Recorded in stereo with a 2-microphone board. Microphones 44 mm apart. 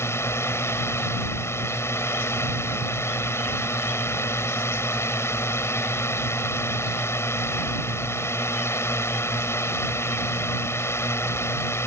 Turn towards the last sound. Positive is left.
turn(degrees=75)  # may be behind; listen again after turning